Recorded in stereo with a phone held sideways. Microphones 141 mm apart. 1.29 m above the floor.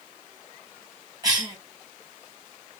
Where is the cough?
25° right (ahead or behind), 2.0 m.